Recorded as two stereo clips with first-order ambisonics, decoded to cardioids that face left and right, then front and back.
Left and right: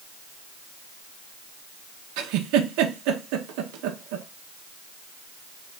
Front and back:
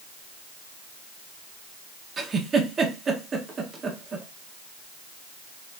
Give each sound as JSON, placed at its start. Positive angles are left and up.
{"t": 2.2, "sound": "a giggle", "azimuth_deg": -110, "distance_m": 0.6}